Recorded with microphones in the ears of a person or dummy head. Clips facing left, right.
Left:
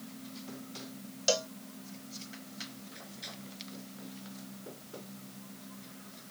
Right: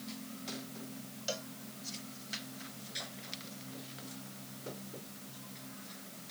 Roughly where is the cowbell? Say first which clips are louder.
Left 10 dB; left.